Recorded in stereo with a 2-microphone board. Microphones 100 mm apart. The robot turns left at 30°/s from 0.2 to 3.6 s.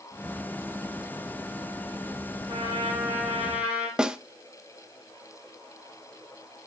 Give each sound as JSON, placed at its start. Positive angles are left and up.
{"t": 2.5, "sound": "a trumpet", "azimuth_deg": -140, "distance_m": 6.0}
{"t": 4.0, "sound": "a snare drum", "side_deg": -10, "distance_m": 0.7}